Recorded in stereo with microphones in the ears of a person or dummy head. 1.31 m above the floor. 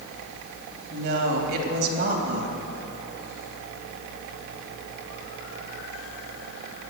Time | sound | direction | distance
0.9 | a woman speaking | 60° right (ahead or behind) | 3 m